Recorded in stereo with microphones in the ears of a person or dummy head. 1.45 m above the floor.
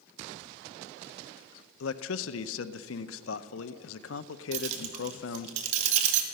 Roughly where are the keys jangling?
Right.